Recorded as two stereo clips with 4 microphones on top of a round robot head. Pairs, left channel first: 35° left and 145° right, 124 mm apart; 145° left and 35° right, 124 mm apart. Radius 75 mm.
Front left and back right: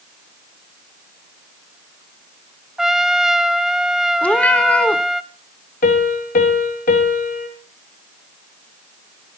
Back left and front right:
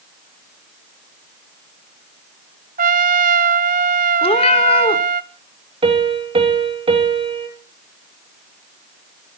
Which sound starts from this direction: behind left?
A cat meowing, at 4.2 s.